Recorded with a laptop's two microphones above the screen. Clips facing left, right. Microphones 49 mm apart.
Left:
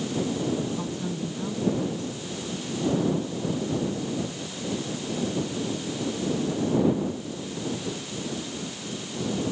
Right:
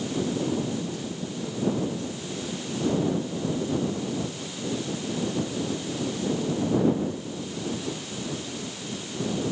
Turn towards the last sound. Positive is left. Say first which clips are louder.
# left 1 dB
turn(degrees=40)  # may be behind; listen again after turning